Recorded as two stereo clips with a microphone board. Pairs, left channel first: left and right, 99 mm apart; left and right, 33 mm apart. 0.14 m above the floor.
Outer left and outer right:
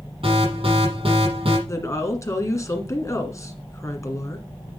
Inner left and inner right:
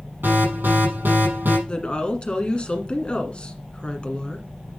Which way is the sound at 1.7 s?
30° left (ahead or behind).